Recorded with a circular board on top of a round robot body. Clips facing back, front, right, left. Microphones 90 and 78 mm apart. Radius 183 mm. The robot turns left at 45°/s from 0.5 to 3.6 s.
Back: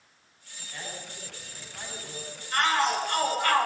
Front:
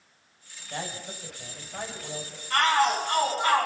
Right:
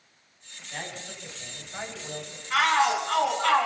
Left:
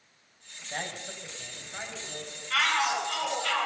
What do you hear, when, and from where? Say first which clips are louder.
0.7 s a man speaking: front 5 dB, left 1 dB; 45° left, 6.5 m; by 2.4 s 35° right, 6.5 m
2.5 s a shout: front 2 dB, right 5 dB; 20° right, 10 m; by 3.6 s 70° right, 10 m